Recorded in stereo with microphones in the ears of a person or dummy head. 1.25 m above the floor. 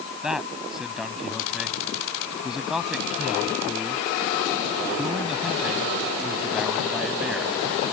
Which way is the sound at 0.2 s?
Centre (ahead or behind).